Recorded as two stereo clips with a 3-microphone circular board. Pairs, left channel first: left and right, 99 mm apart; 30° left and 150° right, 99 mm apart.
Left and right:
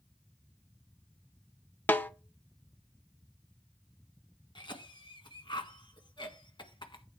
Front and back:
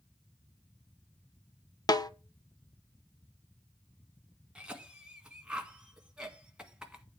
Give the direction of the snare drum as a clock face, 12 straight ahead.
11 o'clock.